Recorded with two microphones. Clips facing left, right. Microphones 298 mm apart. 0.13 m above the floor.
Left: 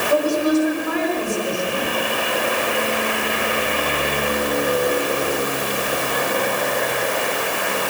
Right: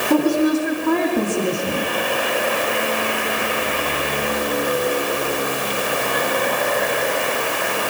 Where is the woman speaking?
65° right (ahead or behind), 7 m; by 1.9 s 55° right (ahead or behind), 7 m.